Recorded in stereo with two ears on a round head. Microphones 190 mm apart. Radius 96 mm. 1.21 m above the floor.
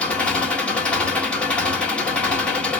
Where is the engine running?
5° left (ahead or behind), 1.2 m.